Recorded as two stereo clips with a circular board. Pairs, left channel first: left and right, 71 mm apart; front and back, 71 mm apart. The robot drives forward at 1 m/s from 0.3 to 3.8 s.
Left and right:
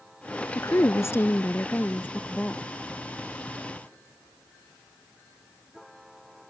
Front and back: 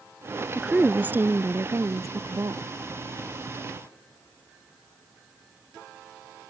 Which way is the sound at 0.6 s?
100° left.